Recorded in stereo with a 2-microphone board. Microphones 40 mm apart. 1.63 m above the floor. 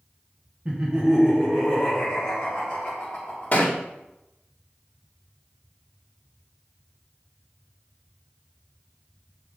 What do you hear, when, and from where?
0.7 s laughter: 30° right (ahead or behind), 1.0 m; by 3.5 s 30° left (ahead or behind), 2 m
3.5 s a thud: 40° left (ahead or behind), 1.8 m